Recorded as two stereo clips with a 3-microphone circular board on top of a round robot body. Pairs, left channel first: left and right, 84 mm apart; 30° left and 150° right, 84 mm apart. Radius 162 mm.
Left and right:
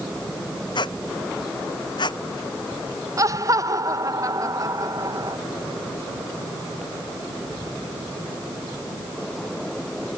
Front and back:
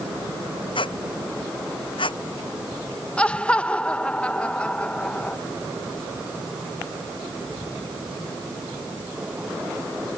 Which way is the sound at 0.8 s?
55° left.